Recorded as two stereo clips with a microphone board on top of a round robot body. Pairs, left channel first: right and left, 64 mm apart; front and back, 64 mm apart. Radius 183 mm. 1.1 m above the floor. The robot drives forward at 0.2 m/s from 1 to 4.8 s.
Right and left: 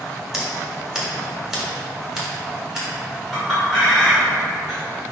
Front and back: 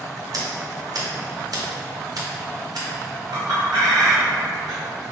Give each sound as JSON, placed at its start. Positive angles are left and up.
{"t": 0.3, "sound": "scissors", "azimuth_deg": 170, "distance_m": 1.7}
{"t": 3.3, "sound": "a clink", "azimuth_deg": 180, "distance_m": 1.6}